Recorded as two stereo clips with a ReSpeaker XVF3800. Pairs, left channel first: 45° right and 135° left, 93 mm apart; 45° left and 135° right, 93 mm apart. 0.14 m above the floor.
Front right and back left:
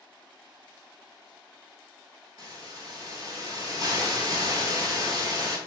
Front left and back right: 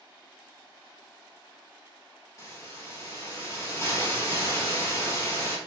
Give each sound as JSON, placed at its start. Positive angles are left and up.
{"t": 2.4, "sound": "a hiss", "azimuth_deg": 95, "distance_m": 0.9}